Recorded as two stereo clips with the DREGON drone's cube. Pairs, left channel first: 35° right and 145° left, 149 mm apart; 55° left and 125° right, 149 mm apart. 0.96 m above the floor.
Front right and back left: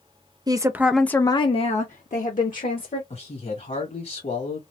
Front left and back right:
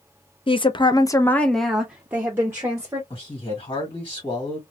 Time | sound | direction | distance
0.5 | a woman speaking | 95° left | 0.6 m
3.1 | a man speaking | 5° left | 2 m